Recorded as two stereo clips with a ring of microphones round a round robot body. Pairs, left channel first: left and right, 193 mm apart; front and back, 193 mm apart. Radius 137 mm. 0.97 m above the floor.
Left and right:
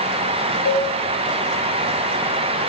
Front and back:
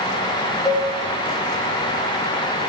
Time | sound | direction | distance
0.7 | a cowbell | 75° left | 2.5 m